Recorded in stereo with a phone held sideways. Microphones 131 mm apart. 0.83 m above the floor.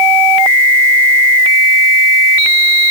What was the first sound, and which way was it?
Only background noise.